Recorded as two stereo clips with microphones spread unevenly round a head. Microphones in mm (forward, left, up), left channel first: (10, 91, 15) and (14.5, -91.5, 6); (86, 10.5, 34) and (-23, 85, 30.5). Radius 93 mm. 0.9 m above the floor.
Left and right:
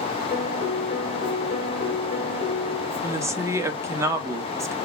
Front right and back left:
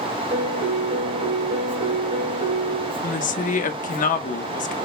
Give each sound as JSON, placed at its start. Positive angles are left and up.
{"t": 0.3, "sound": "a piano", "azimuth_deg": 140, "distance_m": 3.0}
{"t": 3.0, "sound": "a woman speaking", "azimuth_deg": -15, "distance_m": 1.0}